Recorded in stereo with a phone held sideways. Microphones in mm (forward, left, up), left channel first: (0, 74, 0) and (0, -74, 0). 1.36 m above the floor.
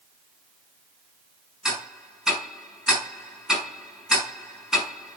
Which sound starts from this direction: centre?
Ticking, at 1.6 s.